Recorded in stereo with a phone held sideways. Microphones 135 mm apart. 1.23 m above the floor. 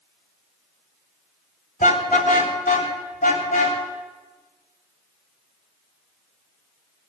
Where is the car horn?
75° left (ahead or behind), 2.5 m; by 3.8 s 65° left (ahead or behind), 4.5 m.